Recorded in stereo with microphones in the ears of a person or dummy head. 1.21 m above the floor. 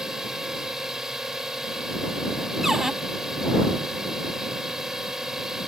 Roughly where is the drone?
Centre.